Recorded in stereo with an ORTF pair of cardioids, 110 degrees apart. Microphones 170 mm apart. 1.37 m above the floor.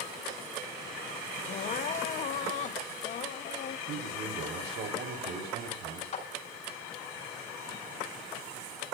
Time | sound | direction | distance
1.5 | crying | 45° left | 0.6 m
3.9 | a man speaking | 70° right | 3.5 m
6.1 | a clap | 45° left | 5 m